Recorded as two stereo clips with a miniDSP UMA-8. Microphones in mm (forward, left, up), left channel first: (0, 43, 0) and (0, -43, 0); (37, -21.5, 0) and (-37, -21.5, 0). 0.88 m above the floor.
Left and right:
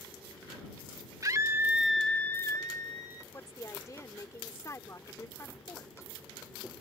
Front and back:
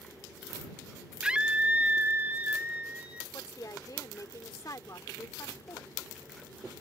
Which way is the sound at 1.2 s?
105° right.